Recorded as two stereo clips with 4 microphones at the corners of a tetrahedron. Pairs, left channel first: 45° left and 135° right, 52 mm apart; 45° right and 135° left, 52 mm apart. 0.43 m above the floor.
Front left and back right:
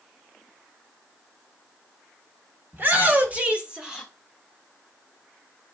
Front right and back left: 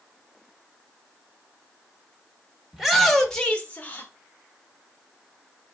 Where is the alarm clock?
No alarm clock in this recording.